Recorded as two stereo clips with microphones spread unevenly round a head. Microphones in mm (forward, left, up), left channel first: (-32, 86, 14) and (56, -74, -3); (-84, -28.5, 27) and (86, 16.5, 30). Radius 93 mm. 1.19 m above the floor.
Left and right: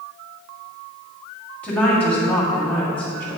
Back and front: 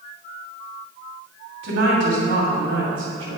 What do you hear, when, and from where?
1.6 s a woman speaking: 35° left, 2.5 m